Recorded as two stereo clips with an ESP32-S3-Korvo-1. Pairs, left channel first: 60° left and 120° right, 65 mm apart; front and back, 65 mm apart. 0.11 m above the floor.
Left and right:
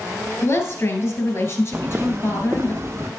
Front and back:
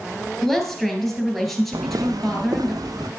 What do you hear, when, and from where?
0.4 s a woman speaking: 85° left, 2.5 m
1.7 s footsteps: 175° left, 0.8 m; by 3.1 s 165° right, 1.8 m